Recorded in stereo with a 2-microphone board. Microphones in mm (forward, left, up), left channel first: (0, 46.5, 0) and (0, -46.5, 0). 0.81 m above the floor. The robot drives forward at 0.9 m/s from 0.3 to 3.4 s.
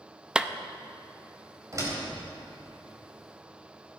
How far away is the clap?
About 0.5 m.